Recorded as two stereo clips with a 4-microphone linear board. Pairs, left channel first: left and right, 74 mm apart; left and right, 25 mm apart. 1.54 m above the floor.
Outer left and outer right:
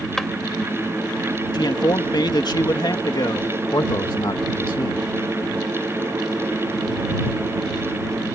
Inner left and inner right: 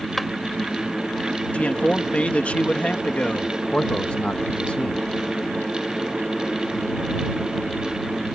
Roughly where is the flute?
No flute in this recording.